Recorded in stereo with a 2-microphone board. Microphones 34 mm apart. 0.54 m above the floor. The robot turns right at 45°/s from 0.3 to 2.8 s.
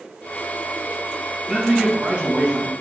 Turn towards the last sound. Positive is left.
turn(degrees=-140)